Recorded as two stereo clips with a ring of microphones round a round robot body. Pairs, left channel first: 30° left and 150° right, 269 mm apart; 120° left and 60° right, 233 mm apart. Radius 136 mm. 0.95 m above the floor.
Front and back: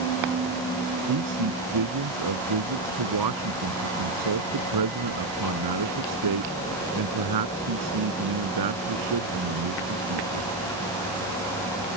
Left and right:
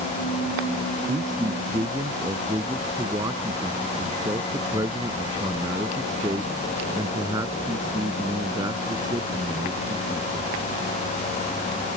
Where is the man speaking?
140° right.